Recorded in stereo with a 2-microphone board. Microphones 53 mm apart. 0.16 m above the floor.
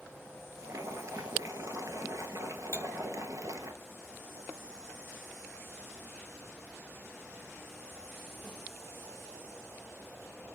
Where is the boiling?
70° right (ahead or behind), 0.8 m.